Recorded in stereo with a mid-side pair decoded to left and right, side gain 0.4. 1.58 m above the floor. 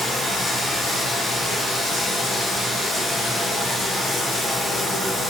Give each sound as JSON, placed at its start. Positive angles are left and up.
{"t": 0.0, "sound": "running water", "azimuth_deg": 65, "distance_m": 1.0}